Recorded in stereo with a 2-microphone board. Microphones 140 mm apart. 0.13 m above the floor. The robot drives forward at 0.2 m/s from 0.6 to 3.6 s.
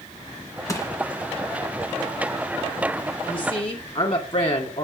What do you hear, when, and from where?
0.7 s crushing: 25° left (ahead or behind), 1.6 m
3.3 s a woman speaking: 40° left (ahead or behind), 1.7 m; by 4.8 s 35° left (ahead or behind), 1.7 m